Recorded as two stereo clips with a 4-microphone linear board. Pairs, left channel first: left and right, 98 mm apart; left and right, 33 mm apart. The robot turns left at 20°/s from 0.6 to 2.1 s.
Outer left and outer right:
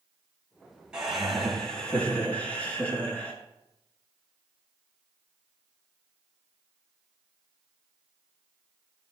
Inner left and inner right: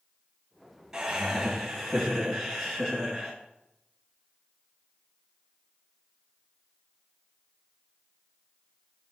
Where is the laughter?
10° right (ahead or behind), 3 m; by 3.4 s 15° left (ahead or behind), 3 m.